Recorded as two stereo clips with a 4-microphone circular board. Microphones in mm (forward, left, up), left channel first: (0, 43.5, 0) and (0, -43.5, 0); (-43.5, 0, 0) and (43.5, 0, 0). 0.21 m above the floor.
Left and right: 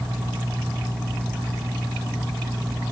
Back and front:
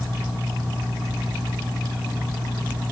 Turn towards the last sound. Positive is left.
No sound to turn to.